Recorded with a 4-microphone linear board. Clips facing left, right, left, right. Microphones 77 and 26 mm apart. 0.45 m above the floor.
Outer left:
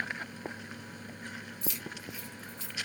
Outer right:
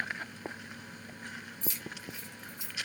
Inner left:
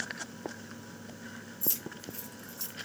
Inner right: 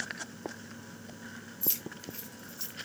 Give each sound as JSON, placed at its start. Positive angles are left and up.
{"t": 1.6, "sound": "keys jangling", "side_deg": -40, "distance_m": 1.2}